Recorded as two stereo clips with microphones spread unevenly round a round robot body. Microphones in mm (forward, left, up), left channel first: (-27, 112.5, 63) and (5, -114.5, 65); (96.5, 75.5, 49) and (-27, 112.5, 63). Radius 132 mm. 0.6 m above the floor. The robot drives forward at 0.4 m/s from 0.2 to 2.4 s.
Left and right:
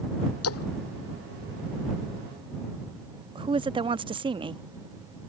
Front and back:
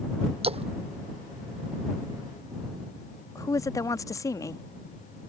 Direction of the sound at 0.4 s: 125° left.